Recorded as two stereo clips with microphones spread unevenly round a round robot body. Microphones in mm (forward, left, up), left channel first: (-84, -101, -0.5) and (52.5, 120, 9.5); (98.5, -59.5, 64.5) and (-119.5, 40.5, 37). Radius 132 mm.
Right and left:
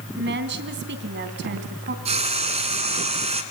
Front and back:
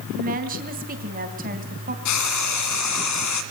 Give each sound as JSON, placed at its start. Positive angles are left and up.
{"t": 0.1, "sound": "a woman speaking", "azimuth_deg": 105, "distance_m": 3.5}
{"t": 2.0, "sound": "frying", "azimuth_deg": -10, "distance_m": 2.0}